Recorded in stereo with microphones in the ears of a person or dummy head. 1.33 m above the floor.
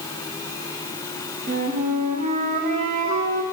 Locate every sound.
1.5 s a flute: 40° right (ahead or behind), 0.9 m